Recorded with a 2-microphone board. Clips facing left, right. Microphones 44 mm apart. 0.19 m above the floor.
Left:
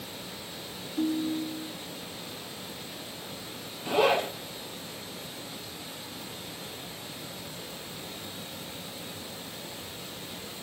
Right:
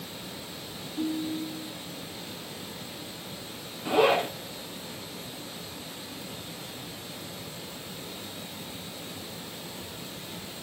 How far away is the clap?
No clap in this recording.